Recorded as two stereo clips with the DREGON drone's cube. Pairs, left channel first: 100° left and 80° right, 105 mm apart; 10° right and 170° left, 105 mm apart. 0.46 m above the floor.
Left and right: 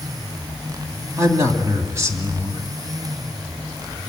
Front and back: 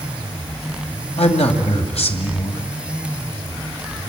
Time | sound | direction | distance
1.2 | a man speaking | 15° right | 2.5 m